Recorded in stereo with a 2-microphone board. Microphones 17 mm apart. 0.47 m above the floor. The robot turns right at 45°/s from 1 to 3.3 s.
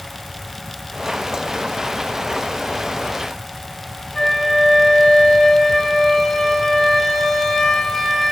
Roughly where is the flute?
Left.